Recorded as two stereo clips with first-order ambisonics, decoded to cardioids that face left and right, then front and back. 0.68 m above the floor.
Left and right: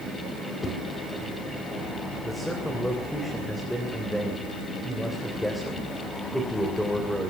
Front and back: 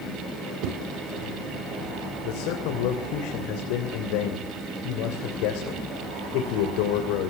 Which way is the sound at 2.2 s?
Straight ahead.